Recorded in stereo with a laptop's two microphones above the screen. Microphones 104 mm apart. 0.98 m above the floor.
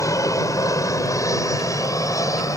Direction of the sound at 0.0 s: 30° left (ahead or behind).